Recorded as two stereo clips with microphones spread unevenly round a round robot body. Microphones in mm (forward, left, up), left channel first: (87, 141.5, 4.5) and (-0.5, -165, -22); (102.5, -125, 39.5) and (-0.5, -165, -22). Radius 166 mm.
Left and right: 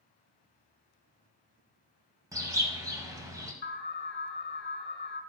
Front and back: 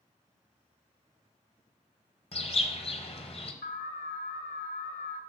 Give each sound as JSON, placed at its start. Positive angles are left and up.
{"t": 2.3, "sound": "a bird", "azimuth_deg": -30, "distance_m": 1.3}
{"t": 3.6, "sound": "an alarm", "azimuth_deg": 20, "distance_m": 1.6}